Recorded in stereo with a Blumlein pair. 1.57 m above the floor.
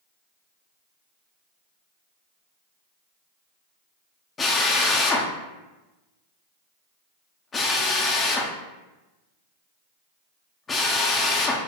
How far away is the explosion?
No explosion in this recording.